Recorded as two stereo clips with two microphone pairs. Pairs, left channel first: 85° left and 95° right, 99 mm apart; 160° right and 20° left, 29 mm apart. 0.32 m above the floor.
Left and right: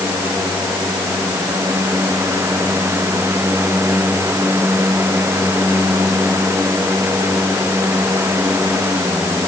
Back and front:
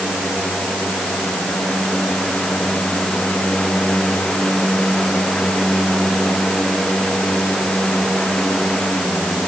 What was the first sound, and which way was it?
Only background noise.